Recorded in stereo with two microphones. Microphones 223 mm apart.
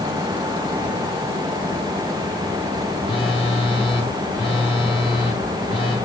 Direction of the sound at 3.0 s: 25° left (ahead or behind).